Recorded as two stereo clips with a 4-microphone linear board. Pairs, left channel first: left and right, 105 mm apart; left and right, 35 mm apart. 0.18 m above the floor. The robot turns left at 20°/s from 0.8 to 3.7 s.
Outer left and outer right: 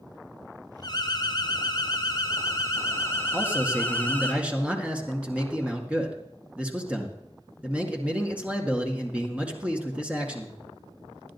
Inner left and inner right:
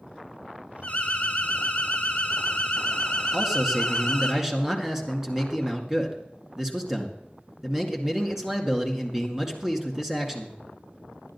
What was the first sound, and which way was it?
An alarm, 85° left.